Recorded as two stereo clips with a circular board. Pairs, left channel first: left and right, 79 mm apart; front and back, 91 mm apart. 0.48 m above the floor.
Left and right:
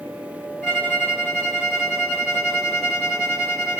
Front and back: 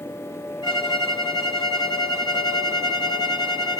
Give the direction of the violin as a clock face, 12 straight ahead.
11 o'clock.